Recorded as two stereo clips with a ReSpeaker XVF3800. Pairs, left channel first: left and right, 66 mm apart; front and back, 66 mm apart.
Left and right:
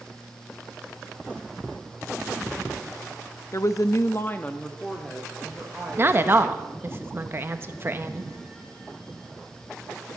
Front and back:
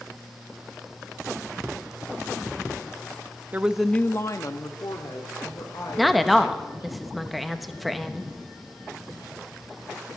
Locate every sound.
3.5 s a woman speaking: 120° left, 0.8 m; by 6.9 s straight ahead, 4 m
6.0 s a woman speaking: 90° right, 1.0 m